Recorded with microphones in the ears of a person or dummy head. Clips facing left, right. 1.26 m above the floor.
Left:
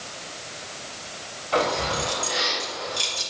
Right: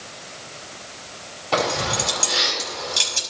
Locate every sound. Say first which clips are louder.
1.5 s keys jangling: right 1 dB; 75° right (ahead or behind), 7 m; by 3.2 s 85° right, 7 m